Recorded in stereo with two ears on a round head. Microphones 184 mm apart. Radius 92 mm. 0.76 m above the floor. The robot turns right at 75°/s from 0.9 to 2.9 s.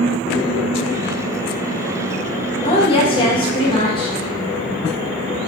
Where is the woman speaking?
30° left (ahead or behind), 0.9 m; by 4.2 s 25° left (ahead or behind), 0.9 m.